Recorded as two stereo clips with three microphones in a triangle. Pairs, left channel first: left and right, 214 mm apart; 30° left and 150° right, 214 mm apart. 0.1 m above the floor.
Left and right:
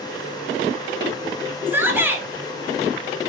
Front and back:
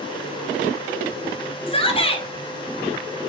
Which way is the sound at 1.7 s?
15° right.